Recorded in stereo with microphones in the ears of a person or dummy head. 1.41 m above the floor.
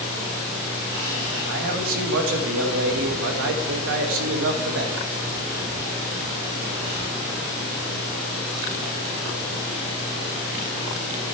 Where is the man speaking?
70° right (ahead or behind), 1.8 m.